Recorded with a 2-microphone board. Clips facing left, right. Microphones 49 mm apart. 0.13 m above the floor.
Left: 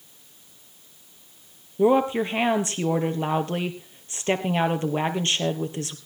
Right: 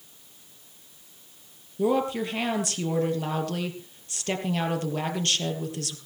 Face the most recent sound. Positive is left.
turn(degrees=30)  # may be behind; listen again after turning